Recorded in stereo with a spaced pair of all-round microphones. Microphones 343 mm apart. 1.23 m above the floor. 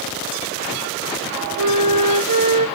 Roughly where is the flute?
Right.